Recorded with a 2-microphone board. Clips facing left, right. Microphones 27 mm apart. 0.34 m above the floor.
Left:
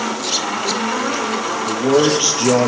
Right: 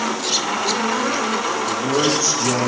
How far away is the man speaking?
About 7 m.